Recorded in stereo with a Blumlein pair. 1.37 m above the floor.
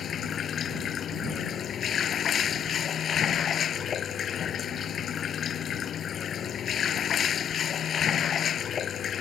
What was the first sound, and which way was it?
Running water, 25° left.